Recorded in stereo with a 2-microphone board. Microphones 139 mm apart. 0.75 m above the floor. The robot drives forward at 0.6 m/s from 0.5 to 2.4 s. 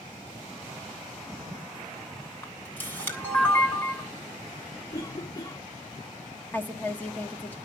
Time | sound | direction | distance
2.4 | a camera shutter | 15° left (ahead or behind) | 3 m
4.9 | a cough | 25° left (ahead or behind) | 1.1 m
6.5 | a woman speaking | 10° left (ahead or behind) | 1.1 m